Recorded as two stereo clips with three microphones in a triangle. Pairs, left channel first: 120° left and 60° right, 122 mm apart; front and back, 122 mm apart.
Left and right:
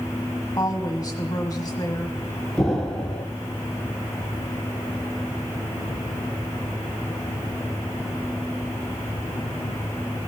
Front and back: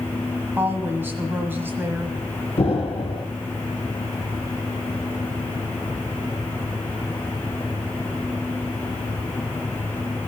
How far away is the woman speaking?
About 1.4 m.